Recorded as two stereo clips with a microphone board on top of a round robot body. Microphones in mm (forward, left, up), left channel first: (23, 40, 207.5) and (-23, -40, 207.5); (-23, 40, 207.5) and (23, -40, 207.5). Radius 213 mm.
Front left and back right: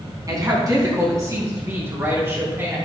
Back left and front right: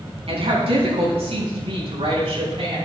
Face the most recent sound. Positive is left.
turn(degrees=-55)